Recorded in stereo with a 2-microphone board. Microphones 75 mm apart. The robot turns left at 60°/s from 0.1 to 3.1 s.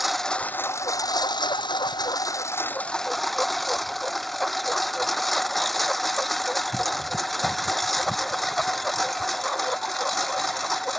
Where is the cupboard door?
No cupboard door in this recording.